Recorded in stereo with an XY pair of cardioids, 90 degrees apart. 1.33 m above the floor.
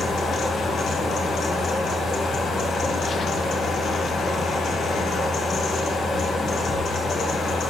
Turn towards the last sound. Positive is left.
turn(degrees=60)